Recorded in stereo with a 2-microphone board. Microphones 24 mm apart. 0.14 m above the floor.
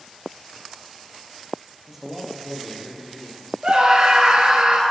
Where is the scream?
40° right (ahead or behind), 2 m.